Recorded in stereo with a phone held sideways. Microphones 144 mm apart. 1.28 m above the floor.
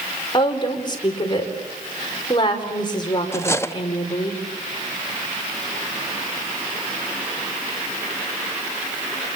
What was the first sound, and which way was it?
A woman speaking, 30° left (ahead or behind).